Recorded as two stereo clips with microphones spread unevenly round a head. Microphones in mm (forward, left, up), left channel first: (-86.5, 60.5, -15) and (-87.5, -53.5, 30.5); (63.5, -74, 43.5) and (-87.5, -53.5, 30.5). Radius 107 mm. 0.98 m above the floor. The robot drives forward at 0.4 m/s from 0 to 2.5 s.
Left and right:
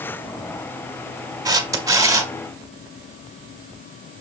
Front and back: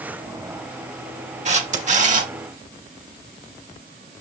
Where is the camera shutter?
145° right, 1.7 m; by 2.3 s 150° right, 2 m.